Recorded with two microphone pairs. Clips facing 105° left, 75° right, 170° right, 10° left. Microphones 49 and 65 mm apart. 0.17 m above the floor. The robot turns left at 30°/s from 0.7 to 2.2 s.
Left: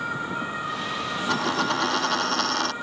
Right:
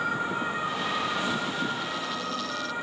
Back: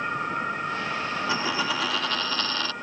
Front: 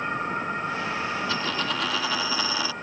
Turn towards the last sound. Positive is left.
turn(degrees=90)